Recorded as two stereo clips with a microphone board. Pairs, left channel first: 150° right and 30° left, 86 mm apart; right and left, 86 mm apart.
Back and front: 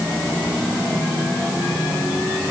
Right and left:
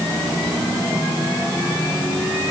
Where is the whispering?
No whispering in this recording.